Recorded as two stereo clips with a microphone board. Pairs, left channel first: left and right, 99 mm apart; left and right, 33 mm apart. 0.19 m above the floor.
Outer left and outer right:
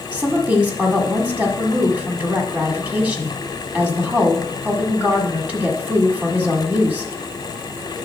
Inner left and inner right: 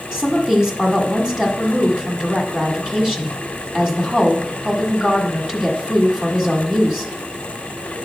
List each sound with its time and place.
0.1 s a woman speaking: 15° right (ahead or behind), 1.5 m